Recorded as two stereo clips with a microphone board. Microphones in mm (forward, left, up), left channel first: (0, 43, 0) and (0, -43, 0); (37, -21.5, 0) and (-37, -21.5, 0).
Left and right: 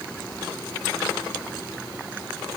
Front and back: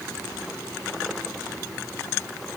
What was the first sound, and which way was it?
Only background noise.